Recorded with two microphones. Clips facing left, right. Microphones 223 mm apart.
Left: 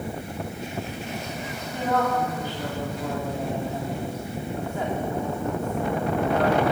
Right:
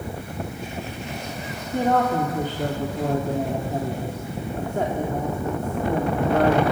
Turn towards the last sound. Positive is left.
turn(degrees=-50)  # may be behind; listen again after turning